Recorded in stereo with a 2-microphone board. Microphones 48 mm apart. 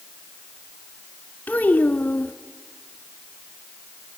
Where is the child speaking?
40° left (ahead or behind), 1.0 m.